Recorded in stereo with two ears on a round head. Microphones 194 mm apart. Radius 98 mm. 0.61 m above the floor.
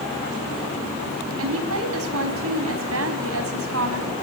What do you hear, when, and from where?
1.4 s a woman speaking: 70° right (ahead or behind), 5 m